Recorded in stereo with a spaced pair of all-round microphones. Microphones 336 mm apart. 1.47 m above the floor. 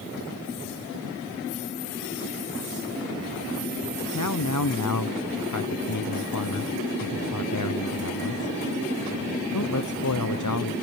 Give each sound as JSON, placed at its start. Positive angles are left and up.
{"t": 4.1, "sound": "a man speaking", "side_deg": 60, "distance_m": 0.8}